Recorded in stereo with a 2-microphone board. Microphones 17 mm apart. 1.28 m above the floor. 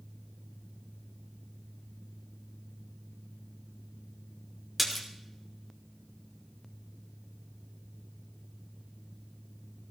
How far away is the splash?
About 2.5 m.